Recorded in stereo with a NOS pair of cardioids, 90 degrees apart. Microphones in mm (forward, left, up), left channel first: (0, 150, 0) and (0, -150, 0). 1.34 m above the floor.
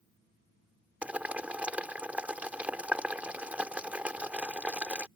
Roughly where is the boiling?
Ahead.